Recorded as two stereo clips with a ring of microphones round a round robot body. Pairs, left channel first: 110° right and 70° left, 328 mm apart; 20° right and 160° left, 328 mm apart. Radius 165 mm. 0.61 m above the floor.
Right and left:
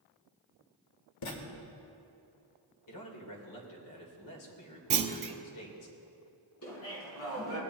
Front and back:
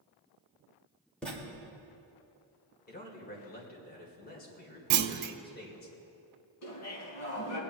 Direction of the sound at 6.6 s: 65° right.